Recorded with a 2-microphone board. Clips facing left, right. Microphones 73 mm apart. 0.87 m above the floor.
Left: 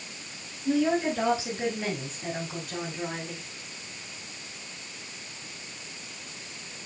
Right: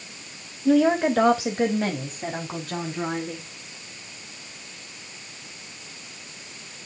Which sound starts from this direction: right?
A woman speaking, at 0.7 s.